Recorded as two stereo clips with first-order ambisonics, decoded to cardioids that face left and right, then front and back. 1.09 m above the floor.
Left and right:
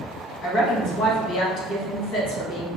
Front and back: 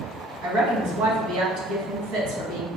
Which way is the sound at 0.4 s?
145° left.